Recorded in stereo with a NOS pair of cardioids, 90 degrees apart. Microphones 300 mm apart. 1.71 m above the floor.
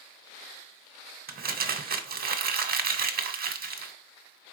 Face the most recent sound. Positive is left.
turn(degrees=-30)